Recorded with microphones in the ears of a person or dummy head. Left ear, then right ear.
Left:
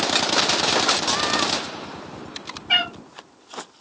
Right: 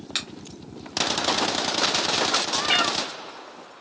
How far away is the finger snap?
About 1.0 m.